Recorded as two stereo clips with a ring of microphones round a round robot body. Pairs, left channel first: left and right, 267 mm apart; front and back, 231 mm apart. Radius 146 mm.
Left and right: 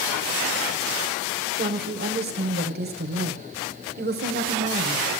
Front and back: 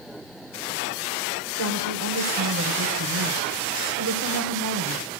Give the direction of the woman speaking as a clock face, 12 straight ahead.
5 o'clock.